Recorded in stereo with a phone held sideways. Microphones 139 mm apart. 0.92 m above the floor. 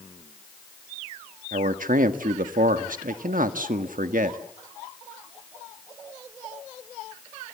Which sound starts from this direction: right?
A man speaking, at 1.5 s.